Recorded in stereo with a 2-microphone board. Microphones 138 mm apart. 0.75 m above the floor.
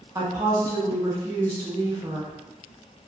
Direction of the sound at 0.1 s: 25° right (ahead or behind).